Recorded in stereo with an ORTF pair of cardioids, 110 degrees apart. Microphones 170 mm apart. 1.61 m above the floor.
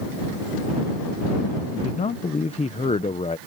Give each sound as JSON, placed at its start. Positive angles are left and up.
{"t": 1.7, "sound": "a man speaking", "azimuth_deg": 40}